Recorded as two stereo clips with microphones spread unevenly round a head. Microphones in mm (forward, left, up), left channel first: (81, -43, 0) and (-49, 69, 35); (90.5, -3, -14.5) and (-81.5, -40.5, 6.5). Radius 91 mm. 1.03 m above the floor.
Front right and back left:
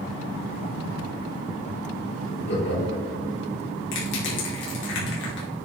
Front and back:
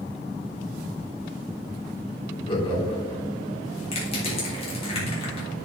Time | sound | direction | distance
2.5 | laughter | 50° right | 3.5 m
3.9 | crushing | 45° right | 3.5 m